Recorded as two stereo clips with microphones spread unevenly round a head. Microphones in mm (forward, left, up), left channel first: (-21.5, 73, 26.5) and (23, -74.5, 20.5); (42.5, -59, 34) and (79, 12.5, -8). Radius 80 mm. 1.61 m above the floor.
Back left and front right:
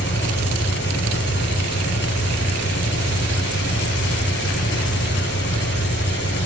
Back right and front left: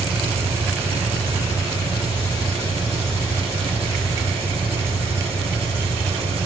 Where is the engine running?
90° left, 9 m.